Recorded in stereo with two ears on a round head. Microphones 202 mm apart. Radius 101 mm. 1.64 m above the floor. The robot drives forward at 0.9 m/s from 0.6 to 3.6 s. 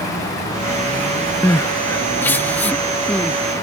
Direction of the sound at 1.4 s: 10° left (ahead or behind).